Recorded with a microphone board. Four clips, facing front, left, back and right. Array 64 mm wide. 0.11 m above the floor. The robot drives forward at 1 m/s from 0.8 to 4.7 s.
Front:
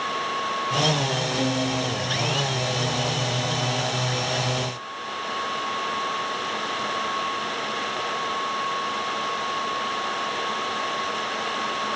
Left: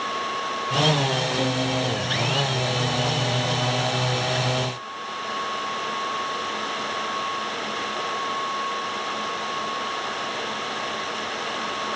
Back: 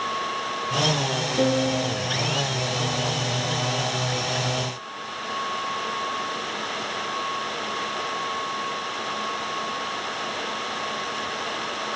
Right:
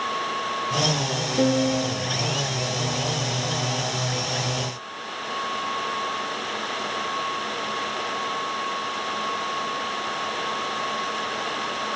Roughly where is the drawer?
I don't hear a drawer.